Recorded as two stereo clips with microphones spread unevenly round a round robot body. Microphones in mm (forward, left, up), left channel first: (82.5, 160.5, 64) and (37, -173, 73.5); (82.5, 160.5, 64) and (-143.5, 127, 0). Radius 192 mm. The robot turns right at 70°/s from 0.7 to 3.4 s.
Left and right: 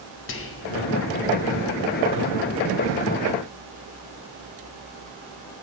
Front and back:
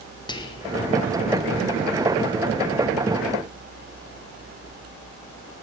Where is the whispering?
90° left, 0.8 m; by 0.7 s 95° left, 0.8 m.